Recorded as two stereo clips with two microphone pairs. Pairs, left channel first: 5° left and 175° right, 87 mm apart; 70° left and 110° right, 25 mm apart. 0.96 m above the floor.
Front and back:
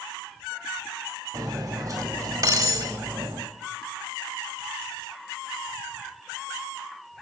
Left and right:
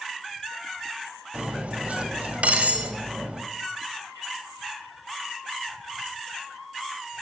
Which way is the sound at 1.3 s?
125° right.